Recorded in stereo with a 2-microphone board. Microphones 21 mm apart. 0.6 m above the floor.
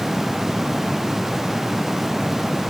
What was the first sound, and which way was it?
Only background noise.